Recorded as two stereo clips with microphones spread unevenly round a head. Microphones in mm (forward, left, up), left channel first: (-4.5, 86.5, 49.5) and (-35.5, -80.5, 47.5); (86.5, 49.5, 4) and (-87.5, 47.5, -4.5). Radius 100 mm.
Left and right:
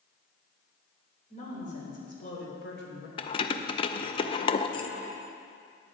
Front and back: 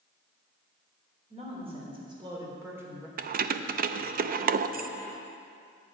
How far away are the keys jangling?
About 0.5 m.